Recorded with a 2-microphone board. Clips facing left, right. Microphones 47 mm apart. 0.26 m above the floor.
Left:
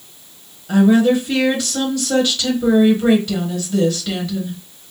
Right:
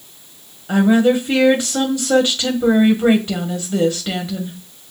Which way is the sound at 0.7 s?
25° right (ahead or behind).